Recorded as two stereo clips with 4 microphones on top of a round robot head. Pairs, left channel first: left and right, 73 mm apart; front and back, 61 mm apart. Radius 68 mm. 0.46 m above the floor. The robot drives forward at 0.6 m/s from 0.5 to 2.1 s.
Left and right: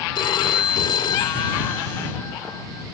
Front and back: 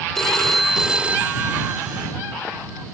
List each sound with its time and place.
0.1 s a phone ringing: 85° left; by 2.9 s 140° left